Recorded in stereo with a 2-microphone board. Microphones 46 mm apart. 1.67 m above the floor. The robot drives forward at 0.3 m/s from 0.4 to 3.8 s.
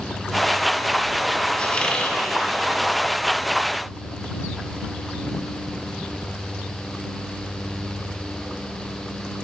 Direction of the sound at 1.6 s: 20° left (ahead or behind).